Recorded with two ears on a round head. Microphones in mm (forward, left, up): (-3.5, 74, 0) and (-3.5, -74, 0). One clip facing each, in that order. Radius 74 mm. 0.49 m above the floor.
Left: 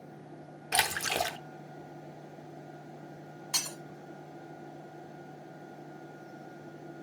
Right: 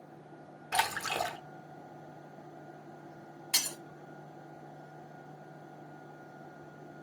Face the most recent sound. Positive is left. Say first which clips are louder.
# even
turn(degrees=-35)  # may be behind; listen again after turning